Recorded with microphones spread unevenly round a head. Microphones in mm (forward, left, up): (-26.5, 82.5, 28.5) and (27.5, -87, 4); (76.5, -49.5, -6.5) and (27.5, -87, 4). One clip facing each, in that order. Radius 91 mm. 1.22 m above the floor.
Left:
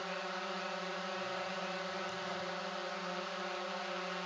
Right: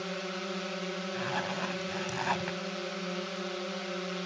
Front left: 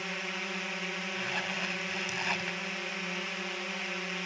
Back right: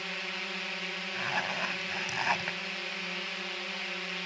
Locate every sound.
0.0 s a drone: 40° right
1.1 s a zipper: 80° right